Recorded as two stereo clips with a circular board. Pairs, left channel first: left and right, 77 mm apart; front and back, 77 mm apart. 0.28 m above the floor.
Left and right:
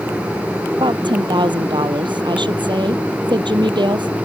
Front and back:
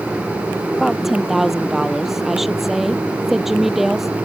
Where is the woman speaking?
95° right.